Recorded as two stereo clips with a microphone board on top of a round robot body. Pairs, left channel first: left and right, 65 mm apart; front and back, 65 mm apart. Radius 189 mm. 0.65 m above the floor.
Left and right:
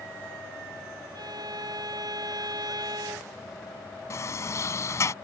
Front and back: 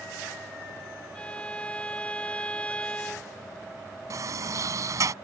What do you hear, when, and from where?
1.1 s a violin: 70° right
4.1 s a sliding door: 140° left